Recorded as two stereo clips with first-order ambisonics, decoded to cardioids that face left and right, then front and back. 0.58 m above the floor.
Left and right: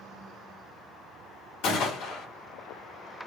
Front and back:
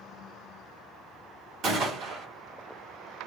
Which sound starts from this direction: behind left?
A gunshot, at 1.6 s.